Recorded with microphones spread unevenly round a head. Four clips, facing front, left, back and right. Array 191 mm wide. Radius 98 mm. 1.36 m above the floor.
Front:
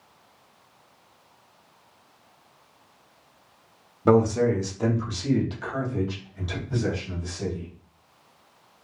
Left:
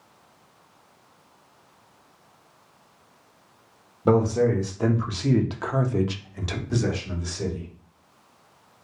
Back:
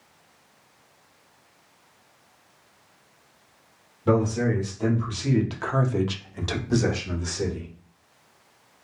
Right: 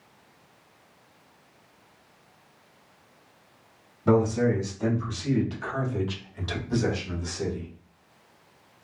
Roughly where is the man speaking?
Ahead left.